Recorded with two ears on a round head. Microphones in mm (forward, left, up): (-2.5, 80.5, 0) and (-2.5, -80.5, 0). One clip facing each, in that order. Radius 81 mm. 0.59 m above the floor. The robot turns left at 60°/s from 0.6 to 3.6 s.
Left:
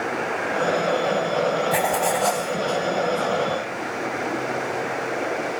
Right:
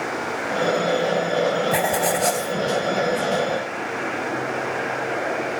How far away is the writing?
About 0.6 m.